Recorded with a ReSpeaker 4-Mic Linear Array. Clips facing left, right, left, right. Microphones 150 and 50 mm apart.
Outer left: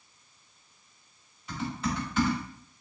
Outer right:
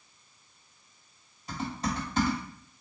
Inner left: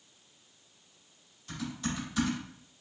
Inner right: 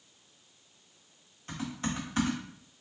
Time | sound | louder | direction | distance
1.5 | typing on a keyboard | outer left 1 dB, inner right 1 dB | 40° right (ahead or behind) | 1.7 m